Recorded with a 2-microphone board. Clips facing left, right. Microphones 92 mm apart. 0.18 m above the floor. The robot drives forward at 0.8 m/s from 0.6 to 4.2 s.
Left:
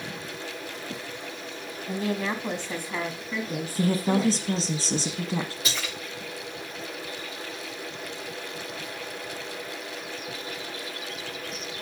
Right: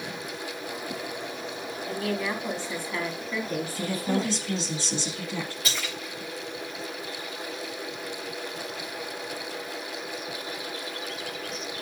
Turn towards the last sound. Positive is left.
turn(degrees=25)  # may be behind; listen again after turning